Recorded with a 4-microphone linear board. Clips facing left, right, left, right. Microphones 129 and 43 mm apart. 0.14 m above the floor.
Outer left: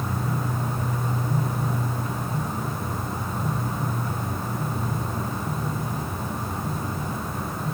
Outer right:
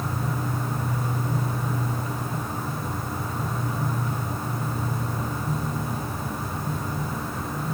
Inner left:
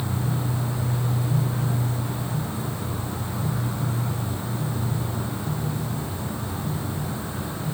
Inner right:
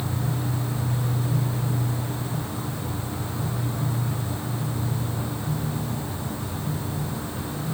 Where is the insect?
20° left (ahead or behind), 2.5 m.